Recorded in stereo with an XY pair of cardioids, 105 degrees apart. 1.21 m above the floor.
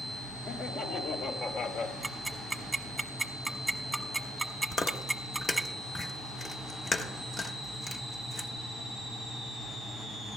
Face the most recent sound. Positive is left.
turn(degrees=30)